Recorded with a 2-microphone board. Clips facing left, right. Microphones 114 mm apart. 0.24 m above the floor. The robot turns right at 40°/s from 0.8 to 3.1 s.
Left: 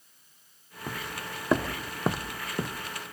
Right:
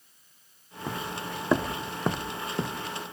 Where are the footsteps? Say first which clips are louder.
Right 3 dB; 15° right (ahead or behind), 0.6 m; by 2.9 s 10° right (ahead or behind), 1.0 m.